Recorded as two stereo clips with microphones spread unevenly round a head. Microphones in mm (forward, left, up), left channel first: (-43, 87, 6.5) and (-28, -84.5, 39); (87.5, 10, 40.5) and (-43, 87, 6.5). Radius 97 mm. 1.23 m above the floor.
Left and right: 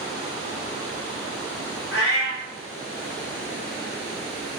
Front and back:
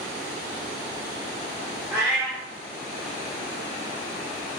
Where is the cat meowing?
65° left, 1.3 m.